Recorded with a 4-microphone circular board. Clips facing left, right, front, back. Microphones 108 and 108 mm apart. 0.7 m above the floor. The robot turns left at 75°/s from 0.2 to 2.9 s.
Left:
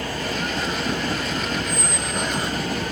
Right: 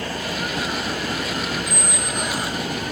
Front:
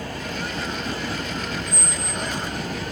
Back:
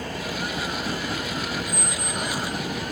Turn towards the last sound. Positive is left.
turn(degrees=80)